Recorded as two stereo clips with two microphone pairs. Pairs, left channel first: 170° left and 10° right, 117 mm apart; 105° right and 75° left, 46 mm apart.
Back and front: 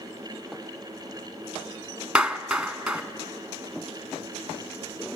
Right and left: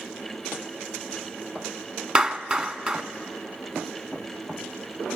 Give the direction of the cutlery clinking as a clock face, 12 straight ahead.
No cutlery clinking in this recording.